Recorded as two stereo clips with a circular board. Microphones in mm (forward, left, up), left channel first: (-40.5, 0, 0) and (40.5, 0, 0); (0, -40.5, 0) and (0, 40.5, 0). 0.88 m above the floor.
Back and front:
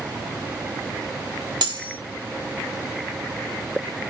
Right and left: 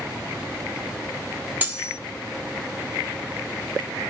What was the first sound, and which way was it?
Cutlery clinking, 20° left.